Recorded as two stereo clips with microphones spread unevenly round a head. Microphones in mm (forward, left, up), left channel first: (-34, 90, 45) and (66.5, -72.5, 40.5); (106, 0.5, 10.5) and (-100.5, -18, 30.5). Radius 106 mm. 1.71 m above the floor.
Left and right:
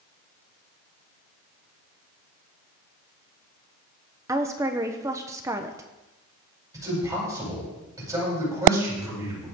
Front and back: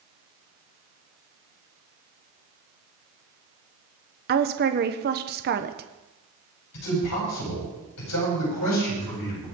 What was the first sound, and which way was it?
A woman speaking, 135° right.